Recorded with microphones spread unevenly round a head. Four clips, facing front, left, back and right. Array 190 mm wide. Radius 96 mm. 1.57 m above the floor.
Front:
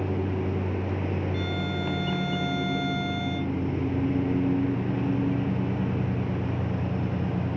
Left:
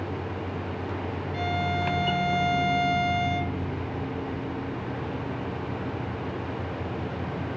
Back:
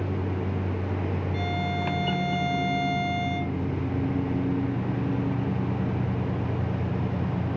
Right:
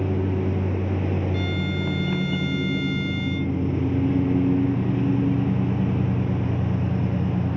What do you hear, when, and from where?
0.0 s a lawn mower: 55° right
1.3 s a violin: 80° right